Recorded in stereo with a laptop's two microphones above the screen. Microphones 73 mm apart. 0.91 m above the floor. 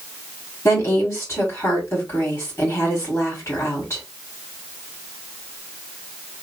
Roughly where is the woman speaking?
Left.